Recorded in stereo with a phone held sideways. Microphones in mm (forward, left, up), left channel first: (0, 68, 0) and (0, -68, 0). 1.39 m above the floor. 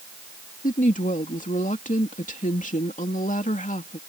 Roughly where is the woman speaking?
Left.